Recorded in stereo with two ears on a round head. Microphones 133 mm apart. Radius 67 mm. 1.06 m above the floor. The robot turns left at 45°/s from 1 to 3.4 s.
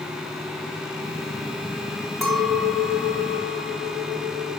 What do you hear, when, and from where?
2.2 s a clink: straight behind, 2.5 m; by 4.5 s 130° left, 2.5 m